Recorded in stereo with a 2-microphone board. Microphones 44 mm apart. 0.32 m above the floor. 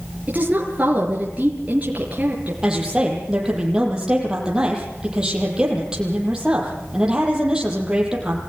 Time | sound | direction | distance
0.3 | a woman speaking | 35° right (ahead or behind) | 5.5 m
2.6 | a woman speaking | 20° right (ahead or behind) | 8 m